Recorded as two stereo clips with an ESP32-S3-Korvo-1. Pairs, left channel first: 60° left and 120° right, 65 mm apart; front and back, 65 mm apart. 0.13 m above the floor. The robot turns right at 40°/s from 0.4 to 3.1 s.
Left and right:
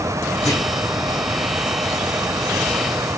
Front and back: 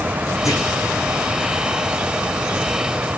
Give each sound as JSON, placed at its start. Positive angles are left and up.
{"t": 0.5, "sound": "a clunk", "azimuth_deg": 35, "distance_m": 2.5}